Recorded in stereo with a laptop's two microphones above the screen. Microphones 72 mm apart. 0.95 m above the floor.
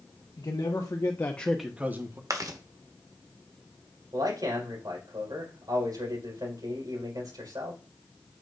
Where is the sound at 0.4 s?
60° left (ahead or behind), 1.8 m; by 2.2 s 35° right (ahead or behind), 1.3 m.